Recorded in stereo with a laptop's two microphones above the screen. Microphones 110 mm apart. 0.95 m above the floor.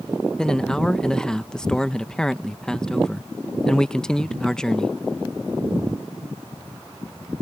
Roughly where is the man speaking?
Centre.